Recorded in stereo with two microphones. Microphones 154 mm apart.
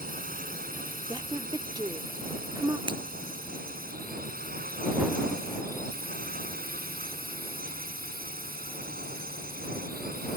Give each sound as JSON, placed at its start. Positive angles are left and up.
{"t": 0.0, "sound": "a drone", "side_deg": -70}
{"t": 1.1, "sound": "a woman speaking", "side_deg": -25}
{"t": 2.9, "sound": "breaking glass", "side_deg": -30}